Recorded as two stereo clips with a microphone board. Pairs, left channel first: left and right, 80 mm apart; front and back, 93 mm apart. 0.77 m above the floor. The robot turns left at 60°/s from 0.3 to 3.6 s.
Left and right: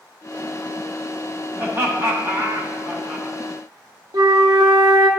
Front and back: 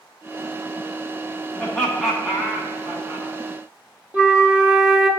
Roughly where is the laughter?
Ahead right.